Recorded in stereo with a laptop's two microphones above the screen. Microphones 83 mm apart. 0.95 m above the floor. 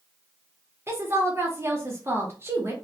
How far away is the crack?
No crack in this recording.